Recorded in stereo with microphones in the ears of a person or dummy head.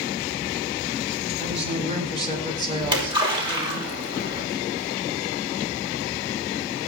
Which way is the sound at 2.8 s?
35° right (ahead or behind).